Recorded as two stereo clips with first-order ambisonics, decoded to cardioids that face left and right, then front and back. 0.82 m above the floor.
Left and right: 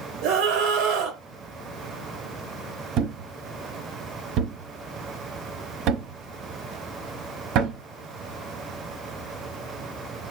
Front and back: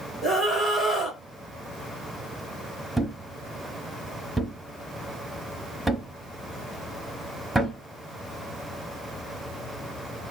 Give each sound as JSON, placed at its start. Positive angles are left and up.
{"t": 0.2, "sound": "a scream", "azimuth_deg": -105, "distance_m": 2.5}
{"t": 3.0, "sound": "a thud", "azimuth_deg": -95, "distance_m": 0.9}